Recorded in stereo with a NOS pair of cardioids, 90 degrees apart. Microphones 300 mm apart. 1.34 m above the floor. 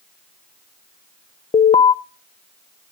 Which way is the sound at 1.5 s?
20° left.